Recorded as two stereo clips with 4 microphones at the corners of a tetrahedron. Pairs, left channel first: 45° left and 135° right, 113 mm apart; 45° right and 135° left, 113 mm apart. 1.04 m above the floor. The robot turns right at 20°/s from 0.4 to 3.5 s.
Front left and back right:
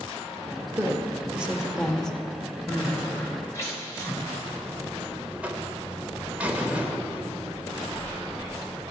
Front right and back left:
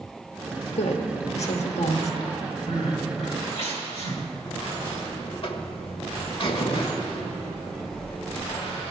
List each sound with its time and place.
0.8 s a woman speaking: 70° right, 1.3 m; by 2.1 s 40° right, 1.3 m
2.7 s crying: 35° right, 2 m; by 4.2 s 20° right, 2 m
4.5 s a buzzer: 60° right, 1.1 m